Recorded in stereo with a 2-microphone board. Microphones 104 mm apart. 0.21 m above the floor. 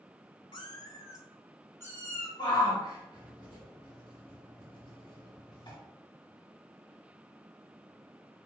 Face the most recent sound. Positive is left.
turn(degrees=45)  # may be behind; listen again after turning